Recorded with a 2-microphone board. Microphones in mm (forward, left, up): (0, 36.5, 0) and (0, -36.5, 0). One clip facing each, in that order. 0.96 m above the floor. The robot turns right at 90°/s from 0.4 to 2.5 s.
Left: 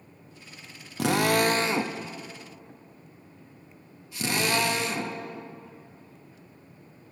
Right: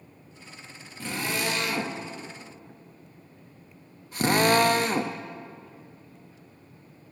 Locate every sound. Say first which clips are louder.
1.0 s a drill: left 8 dB; 90° left, 0.6 m; by 5.2 s 45° right (ahead or behind), 0.6 m